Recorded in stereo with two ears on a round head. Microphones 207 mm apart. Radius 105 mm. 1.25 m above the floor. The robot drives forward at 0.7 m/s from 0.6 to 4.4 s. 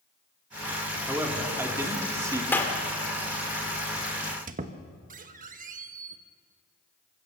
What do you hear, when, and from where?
1.1 s a man speaking: 10° right (ahead or behind), 2.5 m; by 2.4 s 15° right (ahead or behind), 1.7 m
2.5 s a clap: 10° left (ahead or behind), 2.5 m
4.2 s a squeak: 45° right (ahead or behind), 1.1 m; by 6.2 s 40° right (ahead or behind), 1.2 m